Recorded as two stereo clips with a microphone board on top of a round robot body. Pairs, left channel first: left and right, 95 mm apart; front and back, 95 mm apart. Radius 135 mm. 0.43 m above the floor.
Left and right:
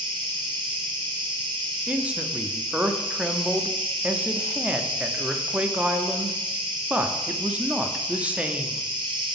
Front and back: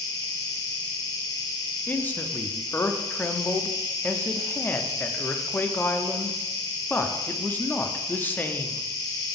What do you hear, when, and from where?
0.0 s an insect: 55° right, 0.9 m
1.9 s a man speaking: 35° right, 0.8 m